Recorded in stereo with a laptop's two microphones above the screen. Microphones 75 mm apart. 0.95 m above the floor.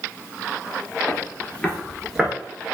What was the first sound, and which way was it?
Footsteps, 35° left (ahead or behind).